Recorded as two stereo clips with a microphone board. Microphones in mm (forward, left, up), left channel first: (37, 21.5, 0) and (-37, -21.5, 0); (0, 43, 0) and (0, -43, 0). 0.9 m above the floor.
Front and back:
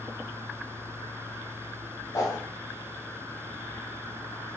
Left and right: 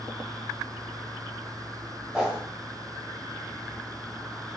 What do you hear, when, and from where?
2.1 s a whoosh: 10° right, 0.7 m